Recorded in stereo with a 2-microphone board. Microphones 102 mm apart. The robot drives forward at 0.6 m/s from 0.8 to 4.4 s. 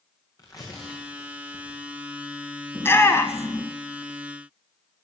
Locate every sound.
0.4 s tearing paper: 35° left (ahead or behind), 4.5 m; by 1.8 s 40° left (ahead or behind), 4 m
2.8 s a shout: 20° left (ahead or behind), 1.6 m; by 3.7 s 25° left (ahead or behind), 1.4 m